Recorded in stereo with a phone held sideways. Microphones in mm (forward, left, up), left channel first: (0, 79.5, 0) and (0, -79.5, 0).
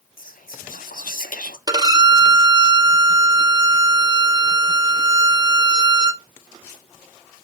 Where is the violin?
25° right (ahead or behind), 0.6 m.